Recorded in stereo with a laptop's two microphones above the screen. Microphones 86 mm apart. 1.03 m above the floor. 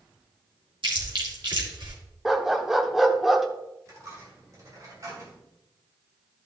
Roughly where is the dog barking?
Centre.